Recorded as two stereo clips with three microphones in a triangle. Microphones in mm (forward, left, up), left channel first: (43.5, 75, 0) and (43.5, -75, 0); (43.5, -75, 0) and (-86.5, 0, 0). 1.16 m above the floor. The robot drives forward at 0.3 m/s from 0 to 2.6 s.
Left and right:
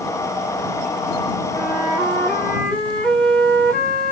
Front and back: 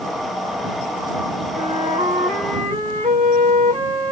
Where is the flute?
175° left, 1.8 m.